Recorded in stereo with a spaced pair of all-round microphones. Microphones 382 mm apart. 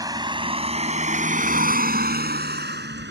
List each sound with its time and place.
0.0 s a vehicle: 10° right (ahead or behind); by 3.1 s 30° right (ahead or behind)